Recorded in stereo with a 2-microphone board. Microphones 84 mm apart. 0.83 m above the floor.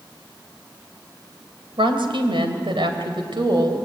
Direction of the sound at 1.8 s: 85° right.